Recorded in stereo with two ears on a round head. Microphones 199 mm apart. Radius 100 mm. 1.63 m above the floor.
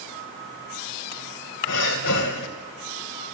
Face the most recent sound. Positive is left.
turn(degrees=55)  # may be behind; listen again after turning